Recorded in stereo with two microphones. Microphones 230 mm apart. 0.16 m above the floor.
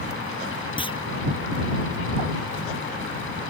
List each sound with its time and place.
0.8 s a clunk: 20° left (ahead or behind)